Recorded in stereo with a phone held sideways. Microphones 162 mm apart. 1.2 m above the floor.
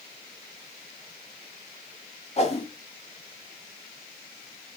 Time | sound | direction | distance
2.4 | a whoosh | 40° left (ahead or behind) | 2.5 m